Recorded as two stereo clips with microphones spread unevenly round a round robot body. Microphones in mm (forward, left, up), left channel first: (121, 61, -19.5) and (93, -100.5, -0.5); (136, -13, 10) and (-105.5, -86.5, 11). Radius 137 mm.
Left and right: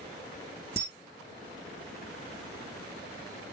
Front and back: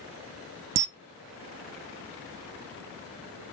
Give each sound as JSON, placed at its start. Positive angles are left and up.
{"t": 0.8, "sound": "a camera shutter", "azimuth_deg": 175, "distance_m": 0.6}